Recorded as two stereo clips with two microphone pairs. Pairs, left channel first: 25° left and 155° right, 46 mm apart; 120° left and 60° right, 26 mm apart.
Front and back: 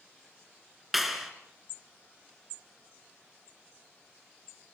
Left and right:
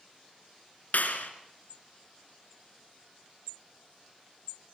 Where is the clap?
115° left, 2.5 m.